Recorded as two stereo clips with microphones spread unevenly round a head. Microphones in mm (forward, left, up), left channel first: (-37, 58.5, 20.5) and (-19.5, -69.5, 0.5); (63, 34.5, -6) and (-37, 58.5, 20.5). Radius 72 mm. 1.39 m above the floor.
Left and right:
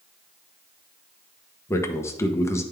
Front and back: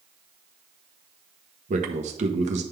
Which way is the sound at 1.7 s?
165° left.